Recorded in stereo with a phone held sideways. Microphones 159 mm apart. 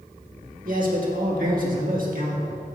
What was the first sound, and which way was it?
A man speaking, 60° right (ahead or behind).